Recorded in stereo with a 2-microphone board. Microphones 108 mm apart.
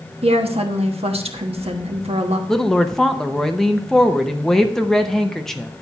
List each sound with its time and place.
0.2 s a woman speaking: 65° right (ahead or behind), 1.1 m
2.5 s a woman speaking: 5° left (ahead or behind), 0.6 m